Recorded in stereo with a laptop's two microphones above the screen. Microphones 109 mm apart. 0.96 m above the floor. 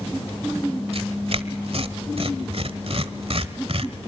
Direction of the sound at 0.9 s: 60° right (ahead or behind).